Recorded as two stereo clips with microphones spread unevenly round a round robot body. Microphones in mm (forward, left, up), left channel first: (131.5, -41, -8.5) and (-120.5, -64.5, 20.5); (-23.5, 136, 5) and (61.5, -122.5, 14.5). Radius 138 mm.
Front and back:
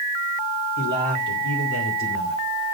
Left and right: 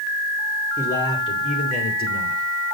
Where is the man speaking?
25° left, 3 m; by 2.4 s 60° left, 3.5 m.